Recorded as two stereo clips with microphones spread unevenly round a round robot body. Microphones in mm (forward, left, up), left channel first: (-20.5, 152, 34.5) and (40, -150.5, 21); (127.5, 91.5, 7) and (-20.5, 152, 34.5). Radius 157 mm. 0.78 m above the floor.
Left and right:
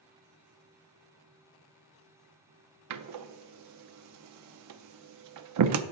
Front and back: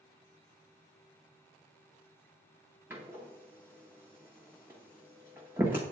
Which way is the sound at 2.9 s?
120° right.